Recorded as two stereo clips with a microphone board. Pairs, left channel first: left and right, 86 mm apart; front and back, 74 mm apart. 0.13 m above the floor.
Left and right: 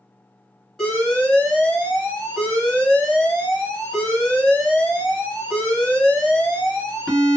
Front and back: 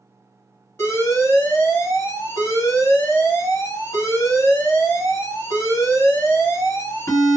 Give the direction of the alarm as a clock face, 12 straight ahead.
11 o'clock.